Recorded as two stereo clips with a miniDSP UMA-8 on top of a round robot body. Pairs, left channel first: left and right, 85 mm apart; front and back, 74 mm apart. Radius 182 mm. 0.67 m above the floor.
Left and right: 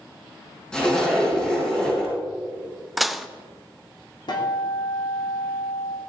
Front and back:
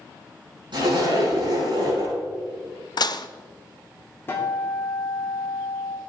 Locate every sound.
0.7 s a zipper: 170° left, 7 m
3.0 s dishes clattering: straight ahead, 0.7 m
4.3 s a guitar: 60° left, 2.5 m